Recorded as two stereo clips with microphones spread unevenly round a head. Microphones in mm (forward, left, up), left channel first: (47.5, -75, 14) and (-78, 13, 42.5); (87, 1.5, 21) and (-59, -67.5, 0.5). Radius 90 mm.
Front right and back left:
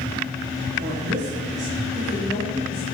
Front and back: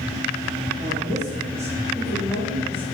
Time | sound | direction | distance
0.8 | a woman speaking | 140° left | 3 m